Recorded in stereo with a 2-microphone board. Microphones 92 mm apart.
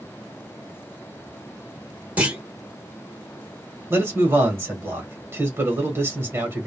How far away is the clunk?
About 1.0 m.